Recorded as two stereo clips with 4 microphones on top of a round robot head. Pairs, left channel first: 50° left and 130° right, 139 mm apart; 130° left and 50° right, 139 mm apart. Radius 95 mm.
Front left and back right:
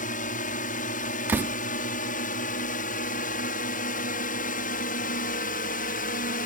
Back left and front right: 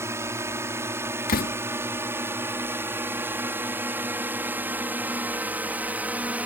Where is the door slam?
155° left.